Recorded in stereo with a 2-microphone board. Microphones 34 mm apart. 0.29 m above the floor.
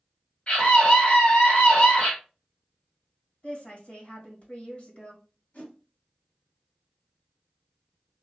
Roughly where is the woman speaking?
Left.